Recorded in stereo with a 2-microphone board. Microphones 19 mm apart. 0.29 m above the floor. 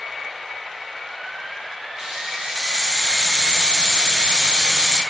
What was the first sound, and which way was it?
A hiss, 30° right (ahead or behind).